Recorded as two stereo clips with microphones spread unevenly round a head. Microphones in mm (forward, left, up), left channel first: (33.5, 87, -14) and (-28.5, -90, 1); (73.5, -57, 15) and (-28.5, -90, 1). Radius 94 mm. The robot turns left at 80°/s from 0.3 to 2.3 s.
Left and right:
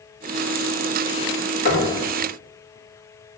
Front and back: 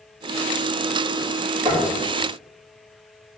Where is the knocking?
120° left, 3 m; by 1.9 s 100° left, 3 m.